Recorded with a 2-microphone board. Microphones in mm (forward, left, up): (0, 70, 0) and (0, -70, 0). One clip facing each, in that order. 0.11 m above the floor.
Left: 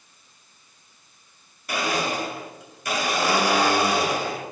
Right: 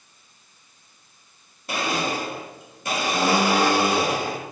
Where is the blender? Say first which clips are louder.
Even; 25° right (ahead or behind), 1.2 m.